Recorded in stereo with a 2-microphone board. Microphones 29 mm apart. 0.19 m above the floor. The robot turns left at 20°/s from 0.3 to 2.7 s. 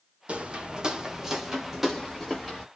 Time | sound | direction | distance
0.3 | footsteps | 40° right (ahead or behind) | 0.8 m